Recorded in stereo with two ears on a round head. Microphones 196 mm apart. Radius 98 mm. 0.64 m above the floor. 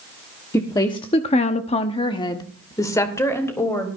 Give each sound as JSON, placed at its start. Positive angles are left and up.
{"t": 0.5, "sound": "a woman speaking", "side_deg": 15, "distance_m": 1.4}